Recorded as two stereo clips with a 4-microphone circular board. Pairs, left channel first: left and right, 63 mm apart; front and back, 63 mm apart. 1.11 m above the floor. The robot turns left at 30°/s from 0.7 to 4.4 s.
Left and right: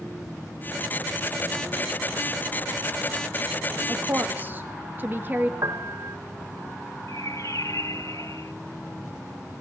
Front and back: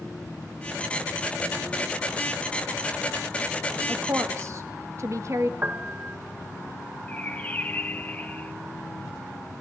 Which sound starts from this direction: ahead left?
A bird, at 7.1 s.